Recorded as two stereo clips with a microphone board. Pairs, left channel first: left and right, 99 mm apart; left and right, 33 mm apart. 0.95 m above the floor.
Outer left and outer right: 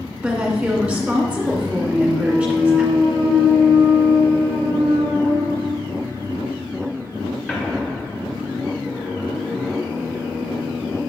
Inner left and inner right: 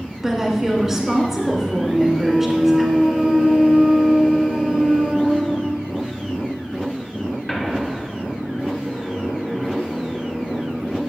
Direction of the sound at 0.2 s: 5° right (ahead or behind).